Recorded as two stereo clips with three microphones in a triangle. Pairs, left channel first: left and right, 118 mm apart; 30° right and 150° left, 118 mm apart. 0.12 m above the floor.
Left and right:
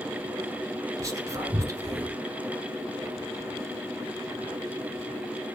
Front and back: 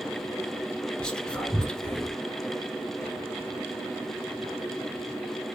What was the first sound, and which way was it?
Whispering, 105° right.